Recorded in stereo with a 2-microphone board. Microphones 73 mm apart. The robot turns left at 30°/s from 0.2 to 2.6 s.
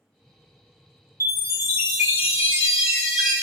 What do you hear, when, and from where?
1.2 s a chime: 120° right, 2.0 m; by 3.4 s 165° right, 2.0 m